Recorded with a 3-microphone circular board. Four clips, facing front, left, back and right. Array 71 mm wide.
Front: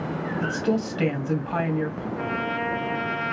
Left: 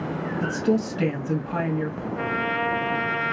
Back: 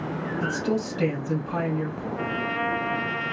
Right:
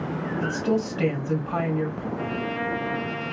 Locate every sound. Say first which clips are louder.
0.4 s a woman speaking: left 2 dB, front 2 dB; 20° right, 1.5 m
2.1 s a trumpet: left 5 dB, even; 110° left, 0.8 m